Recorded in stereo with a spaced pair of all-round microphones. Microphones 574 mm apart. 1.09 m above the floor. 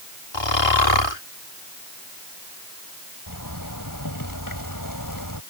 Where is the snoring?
50° left (ahead or behind).